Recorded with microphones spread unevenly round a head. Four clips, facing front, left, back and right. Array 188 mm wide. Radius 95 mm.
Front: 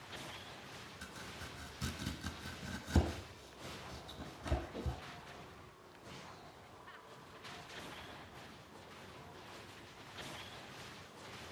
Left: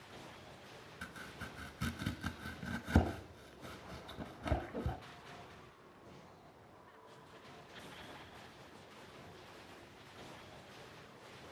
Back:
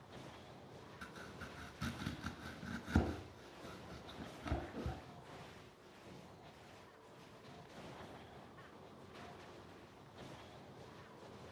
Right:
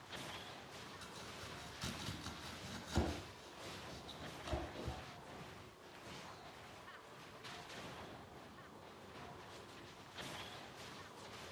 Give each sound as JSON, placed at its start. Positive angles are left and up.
{"t": 1.0, "sound": "chopping", "azimuth_deg": 95, "distance_m": 1.0}